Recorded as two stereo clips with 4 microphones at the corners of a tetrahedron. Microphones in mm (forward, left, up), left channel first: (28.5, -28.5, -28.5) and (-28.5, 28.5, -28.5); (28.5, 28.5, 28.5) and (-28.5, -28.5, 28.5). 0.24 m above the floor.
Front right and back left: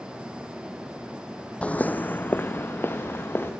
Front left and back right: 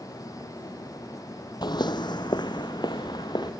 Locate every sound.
1.6 s footsteps: 30° left, 0.5 m; by 3.5 s 15° left, 2.5 m